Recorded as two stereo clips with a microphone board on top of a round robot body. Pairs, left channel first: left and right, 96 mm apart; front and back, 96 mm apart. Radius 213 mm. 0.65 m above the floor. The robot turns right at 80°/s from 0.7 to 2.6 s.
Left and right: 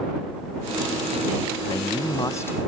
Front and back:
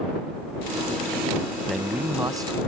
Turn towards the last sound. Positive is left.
turn(degrees=155)